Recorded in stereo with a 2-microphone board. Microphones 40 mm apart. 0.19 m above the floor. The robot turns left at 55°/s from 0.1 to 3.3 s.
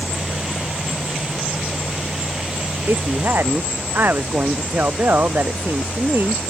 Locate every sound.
2.9 s a woman speaking: 85° right; by 6.4 s 60° right (ahead or behind)